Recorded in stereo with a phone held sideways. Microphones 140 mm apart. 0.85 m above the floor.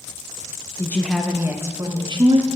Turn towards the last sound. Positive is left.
turn(degrees=-45)  # may be behind; listen again after turning